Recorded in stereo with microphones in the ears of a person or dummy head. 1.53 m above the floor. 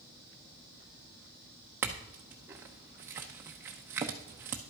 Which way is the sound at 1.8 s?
15° right (ahead or behind).